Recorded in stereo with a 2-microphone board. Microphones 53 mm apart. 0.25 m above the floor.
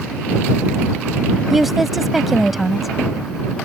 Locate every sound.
1.5 s a woman speaking: 5° right (ahead or behind)